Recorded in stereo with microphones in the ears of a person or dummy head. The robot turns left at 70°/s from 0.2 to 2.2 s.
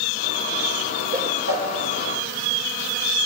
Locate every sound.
1.1 s a whoosh: 60° right (ahead or behind), 5.5 m; by 1.7 s 80° right, 5.5 m